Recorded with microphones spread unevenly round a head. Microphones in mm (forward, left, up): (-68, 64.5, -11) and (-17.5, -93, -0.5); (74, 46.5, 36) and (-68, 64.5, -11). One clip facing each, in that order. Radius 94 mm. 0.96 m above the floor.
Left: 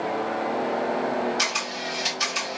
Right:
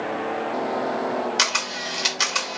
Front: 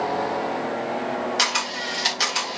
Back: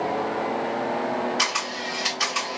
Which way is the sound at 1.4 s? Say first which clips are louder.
Even, front 1 dB; 60° right.